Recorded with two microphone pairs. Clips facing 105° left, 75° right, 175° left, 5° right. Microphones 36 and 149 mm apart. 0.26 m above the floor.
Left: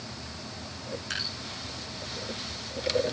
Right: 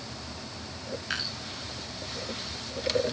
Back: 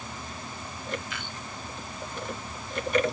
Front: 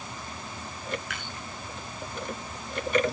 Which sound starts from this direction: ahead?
Dripping, at 1.1 s.